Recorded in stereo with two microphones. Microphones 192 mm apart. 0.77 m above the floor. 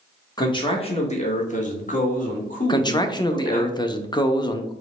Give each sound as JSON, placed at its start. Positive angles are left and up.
{"t": 0.4, "sound": "a man speaking", "side_deg": 20, "distance_m": 0.9}
{"t": 2.7, "sound": "a man speaking", "side_deg": 25, "distance_m": 0.5}